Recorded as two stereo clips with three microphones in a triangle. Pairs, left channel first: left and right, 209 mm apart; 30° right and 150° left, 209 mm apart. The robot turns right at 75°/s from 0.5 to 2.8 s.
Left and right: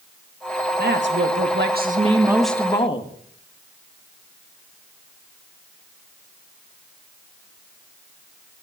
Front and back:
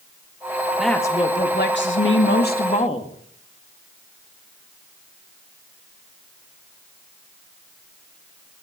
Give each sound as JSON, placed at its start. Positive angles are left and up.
{"t": 0.8, "sound": "a woman speaking", "azimuth_deg": -125, "distance_m": 1.8}